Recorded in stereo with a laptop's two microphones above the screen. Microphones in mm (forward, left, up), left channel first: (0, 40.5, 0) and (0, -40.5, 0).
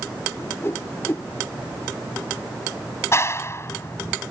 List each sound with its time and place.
0.4 s a whoosh: 30° left (ahead or behind)
3.1 s a clap: 35° left (ahead or behind)